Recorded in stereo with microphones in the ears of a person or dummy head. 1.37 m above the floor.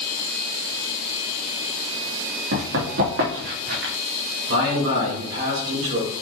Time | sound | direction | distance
2.5 | running footsteps | 60° right (ahead or behind) | 4 m
4.5 | a man speaking | 65° right (ahead or behind) | 3.5 m